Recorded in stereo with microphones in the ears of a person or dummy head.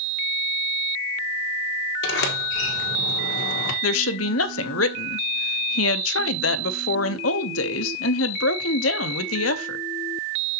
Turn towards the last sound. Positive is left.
turn(degrees=80)